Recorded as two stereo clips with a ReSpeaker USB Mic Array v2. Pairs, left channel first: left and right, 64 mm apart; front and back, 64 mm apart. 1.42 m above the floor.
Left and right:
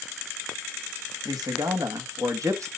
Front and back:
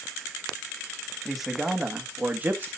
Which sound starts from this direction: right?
A man speaking, at 1.2 s.